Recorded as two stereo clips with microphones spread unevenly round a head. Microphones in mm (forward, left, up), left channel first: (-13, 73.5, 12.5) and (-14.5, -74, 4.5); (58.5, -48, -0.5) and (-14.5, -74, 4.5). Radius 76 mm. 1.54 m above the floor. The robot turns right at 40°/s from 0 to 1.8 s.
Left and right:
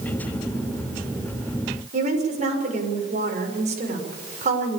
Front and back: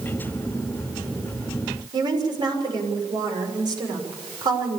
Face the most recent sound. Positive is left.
turn(degrees=-135)